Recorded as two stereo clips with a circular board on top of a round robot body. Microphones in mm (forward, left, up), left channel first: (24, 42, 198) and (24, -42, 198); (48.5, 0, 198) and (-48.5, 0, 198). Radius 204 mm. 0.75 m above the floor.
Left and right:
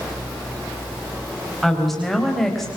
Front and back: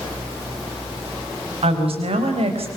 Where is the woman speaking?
Straight behind, 4.5 m; by 2.7 s 175° left, 4 m.